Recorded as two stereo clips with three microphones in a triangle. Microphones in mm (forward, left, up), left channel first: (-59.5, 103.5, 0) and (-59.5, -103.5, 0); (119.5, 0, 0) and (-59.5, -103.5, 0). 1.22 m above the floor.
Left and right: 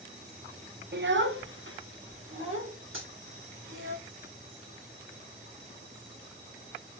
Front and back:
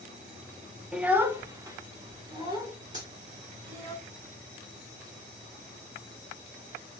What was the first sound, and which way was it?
A child speaking, 65° right.